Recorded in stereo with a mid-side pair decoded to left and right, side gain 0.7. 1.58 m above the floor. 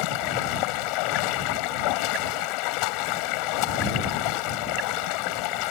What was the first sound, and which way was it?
Running water, 70° left.